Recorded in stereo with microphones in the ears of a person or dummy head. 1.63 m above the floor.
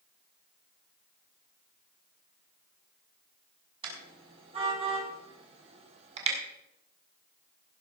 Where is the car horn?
30° right (ahead or behind), 5.5 m; by 6.4 s 40° right (ahead or behind), 4 m.